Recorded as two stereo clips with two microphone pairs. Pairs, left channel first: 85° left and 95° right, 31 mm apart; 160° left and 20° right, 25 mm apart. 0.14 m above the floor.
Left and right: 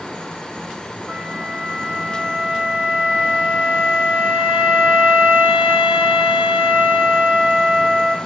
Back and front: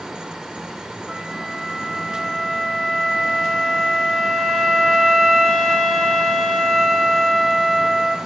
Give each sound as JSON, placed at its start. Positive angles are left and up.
{"t": 1.1, "sound": "a flute", "azimuth_deg": -105, "distance_m": 4.5}